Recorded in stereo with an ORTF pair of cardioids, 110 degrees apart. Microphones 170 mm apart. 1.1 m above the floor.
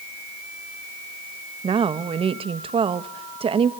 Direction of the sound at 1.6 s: 35° right.